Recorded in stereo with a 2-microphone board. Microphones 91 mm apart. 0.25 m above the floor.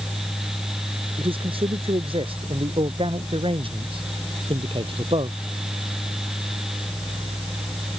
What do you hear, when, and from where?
1.2 s a man speaking: 80° right; by 5.4 s 75° right (ahead or behind)